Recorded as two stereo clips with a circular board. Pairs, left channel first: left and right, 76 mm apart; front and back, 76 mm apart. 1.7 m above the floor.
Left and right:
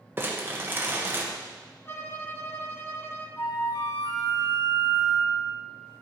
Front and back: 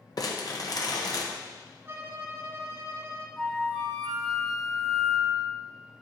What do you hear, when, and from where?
0.2 s crumpling: 30° right, 1.5 m
1.9 s a violin: 135° left, 1.0 m
3.4 s a flute: 90° left, 5 m